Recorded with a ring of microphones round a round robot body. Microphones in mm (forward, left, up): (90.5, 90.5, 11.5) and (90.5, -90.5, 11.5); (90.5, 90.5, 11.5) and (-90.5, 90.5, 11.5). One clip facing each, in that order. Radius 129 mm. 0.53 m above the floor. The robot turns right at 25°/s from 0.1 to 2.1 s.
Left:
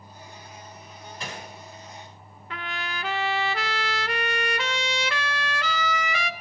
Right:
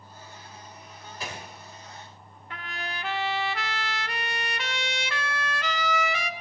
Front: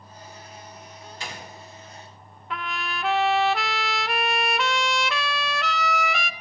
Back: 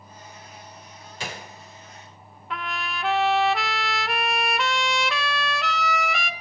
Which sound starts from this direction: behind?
A gunshot, at 1.2 s.